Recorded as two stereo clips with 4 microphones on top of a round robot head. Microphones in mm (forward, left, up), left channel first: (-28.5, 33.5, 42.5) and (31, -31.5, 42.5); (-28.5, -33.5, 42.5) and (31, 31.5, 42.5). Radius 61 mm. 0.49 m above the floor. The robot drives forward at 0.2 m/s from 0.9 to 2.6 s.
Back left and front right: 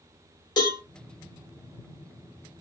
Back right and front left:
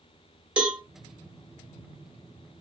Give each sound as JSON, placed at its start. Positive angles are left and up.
{"t": 0.6, "sound": "a cowbell", "azimuth_deg": 120, "distance_m": 1.3}